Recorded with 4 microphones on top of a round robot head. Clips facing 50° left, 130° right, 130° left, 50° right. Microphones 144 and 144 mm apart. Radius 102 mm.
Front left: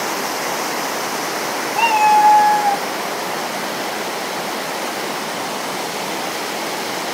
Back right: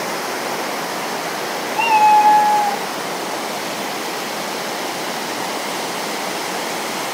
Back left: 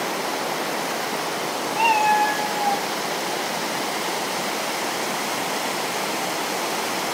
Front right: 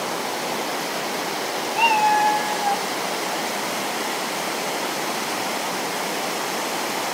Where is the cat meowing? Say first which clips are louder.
Back right 1 dB, even; 5° right, 0.8 m; by 2.8 s 50° left, 0.8 m.